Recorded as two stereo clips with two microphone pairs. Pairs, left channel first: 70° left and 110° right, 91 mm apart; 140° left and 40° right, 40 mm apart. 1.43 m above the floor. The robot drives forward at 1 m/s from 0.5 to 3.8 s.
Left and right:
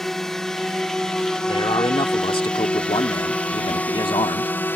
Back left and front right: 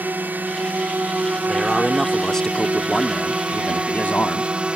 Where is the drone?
15° right; by 4.8 s 10° left.